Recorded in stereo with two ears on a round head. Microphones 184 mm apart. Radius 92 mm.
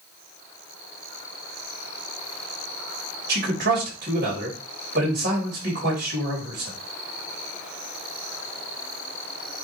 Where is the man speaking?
55° right (ahead or behind), 3.5 m.